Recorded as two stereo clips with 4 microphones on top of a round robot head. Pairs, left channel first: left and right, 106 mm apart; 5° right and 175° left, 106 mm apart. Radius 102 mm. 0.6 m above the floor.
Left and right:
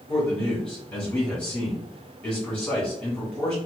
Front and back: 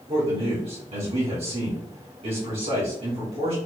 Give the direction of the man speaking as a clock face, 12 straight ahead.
6 o'clock.